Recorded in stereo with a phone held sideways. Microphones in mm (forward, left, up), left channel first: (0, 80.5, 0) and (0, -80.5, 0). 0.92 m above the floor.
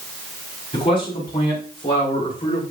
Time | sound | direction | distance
0.7 | a man speaking | 35° left (ahead or behind) | 5 m